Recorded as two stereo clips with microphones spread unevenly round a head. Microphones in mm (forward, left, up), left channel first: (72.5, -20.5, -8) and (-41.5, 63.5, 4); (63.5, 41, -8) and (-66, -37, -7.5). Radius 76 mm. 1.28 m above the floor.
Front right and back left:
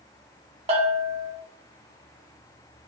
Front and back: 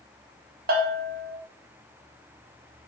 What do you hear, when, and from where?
0.7 s a bell: 170° right, 0.6 m